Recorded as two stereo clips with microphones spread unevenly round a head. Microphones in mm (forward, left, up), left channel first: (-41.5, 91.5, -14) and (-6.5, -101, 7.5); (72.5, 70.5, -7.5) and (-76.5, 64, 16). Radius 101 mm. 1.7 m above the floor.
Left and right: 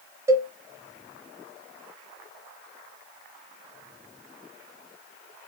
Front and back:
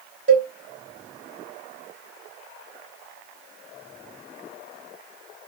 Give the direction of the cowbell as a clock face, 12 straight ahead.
5 o'clock.